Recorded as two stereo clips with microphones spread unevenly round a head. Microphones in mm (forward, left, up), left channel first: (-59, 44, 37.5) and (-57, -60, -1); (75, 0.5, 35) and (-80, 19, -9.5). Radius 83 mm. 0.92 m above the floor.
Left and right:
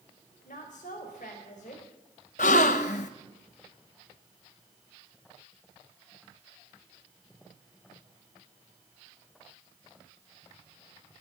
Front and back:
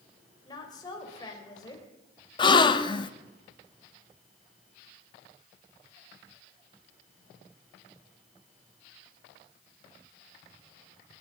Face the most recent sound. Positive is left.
turn(degrees=55)